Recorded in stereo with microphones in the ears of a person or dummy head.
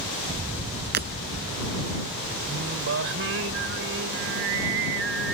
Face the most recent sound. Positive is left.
turn(degrees=-75)  # may be behind; listen again after turning